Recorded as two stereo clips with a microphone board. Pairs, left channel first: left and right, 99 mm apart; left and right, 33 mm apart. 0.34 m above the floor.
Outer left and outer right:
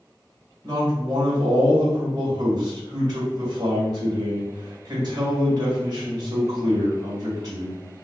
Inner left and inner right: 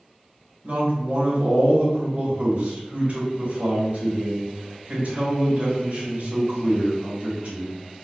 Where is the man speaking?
45° right (ahead or behind), 2.0 m.